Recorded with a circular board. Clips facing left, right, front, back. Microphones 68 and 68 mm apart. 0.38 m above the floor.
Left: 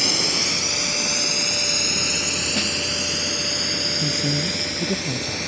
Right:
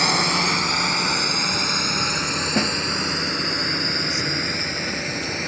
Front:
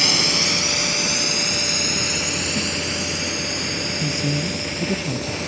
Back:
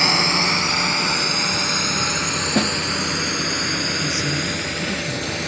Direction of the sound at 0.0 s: 125° right.